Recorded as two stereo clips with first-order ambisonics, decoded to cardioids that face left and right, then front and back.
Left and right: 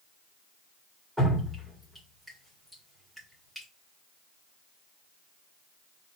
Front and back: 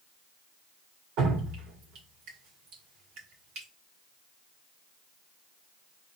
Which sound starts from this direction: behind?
Dripping, at 1.2 s.